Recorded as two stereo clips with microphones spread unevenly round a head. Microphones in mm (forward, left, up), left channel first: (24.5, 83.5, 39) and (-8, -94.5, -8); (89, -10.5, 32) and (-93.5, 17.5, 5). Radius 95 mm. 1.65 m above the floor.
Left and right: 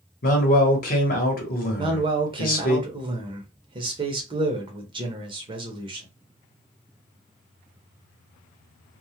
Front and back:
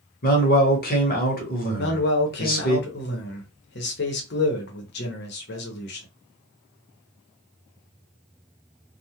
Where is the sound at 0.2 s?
35° left, 1.0 m.